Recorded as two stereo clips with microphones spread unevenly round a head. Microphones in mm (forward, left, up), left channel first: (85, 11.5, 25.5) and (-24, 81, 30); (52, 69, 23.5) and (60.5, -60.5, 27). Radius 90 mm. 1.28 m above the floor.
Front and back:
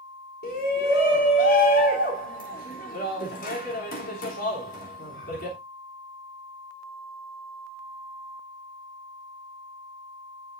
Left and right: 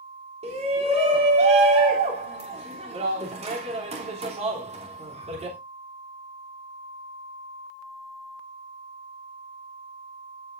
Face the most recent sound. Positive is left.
turn(degrees=-50)